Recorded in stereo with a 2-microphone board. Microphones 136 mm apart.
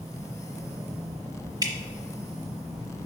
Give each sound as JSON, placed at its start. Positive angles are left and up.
{"t": 1.6, "sound": "dripping", "side_deg": -30, "distance_m": 1.0}